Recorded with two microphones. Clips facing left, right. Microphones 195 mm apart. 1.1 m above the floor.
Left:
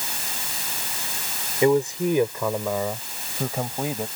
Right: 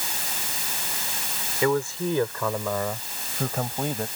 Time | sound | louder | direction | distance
1.6 | a man speaking | left 4 dB | 25° left (ahead or behind) | ?